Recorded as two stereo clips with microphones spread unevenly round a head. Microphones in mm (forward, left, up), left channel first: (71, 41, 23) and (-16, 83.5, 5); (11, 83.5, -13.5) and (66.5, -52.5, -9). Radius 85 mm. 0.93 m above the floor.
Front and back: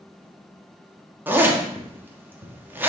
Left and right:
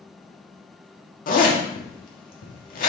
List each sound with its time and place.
1.3 s a zipper: 85° left, 1.5 m